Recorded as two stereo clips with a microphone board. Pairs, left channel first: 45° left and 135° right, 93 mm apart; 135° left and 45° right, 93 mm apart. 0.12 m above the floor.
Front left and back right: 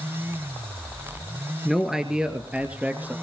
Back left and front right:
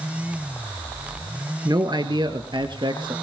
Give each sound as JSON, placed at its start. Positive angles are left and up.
{"t": 1.6, "sound": "a man speaking", "azimuth_deg": -45, "distance_m": 2.0}